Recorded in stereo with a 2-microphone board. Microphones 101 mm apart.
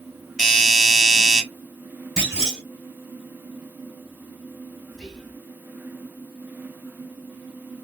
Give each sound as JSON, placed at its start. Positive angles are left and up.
{"t": 0.4, "sound": "a doorbell", "side_deg": 0, "distance_m": 1.5}
{"t": 2.2, "sound": "a clunk", "side_deg": -5, "distance_m": 2.0}
{"t": 4.9, "sound": "whispering", "side_deg": 5, "distance_m": 1.6}